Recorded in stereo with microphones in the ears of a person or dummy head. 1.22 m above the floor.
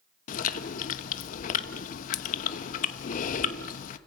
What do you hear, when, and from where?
0.3 s chewing: 45° left (ahead or behind), 1.0 m